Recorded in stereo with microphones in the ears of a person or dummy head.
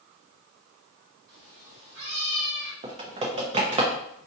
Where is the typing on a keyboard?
35° right (ahead or behind), 0.8 m.